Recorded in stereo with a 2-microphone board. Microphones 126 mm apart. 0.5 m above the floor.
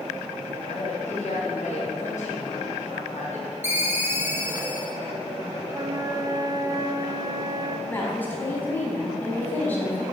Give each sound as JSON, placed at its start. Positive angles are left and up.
{"t": 0.7, "sound": "a woman speaking", "side_deg": 70, "distance_m": 3.5}
{"t": 3.6, "sound": "a ringtone", "side_deg": -20, "distance_m": 2.0}
{"t": 5.7, "sound": "a flute", "side_deg": -35, "distance_m": 1.2}
{"t": 7.9, "sound": "a woman speaking", "side_deg": 15, "distance_m": 4.5}